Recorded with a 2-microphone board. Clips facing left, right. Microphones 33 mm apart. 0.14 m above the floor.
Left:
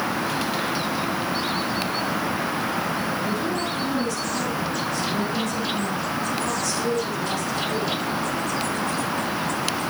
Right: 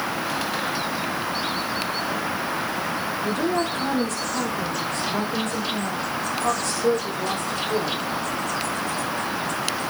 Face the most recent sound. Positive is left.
turn(degrees=-40)  # may be behind; listen again after turning